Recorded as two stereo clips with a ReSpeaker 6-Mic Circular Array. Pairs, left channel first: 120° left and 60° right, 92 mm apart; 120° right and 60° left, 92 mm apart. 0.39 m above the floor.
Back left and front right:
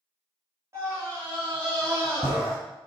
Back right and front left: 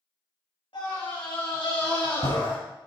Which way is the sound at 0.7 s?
115° right.